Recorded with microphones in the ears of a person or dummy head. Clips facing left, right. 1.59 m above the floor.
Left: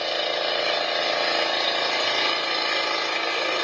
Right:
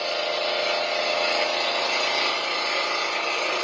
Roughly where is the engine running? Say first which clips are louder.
Even; centre.